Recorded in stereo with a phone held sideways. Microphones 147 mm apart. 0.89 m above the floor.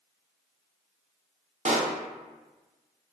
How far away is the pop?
About 0.5 m.